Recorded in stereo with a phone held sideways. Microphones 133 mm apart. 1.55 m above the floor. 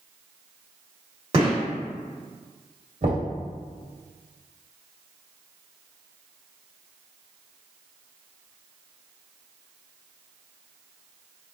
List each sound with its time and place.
1.3 s a gunshot: 45° right (ahead or behind), 2.0 m
3.0 s knocking: 65° right (ahead or behind), 1.8 m